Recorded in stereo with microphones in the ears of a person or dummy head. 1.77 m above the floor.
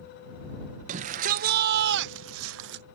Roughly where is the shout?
Right.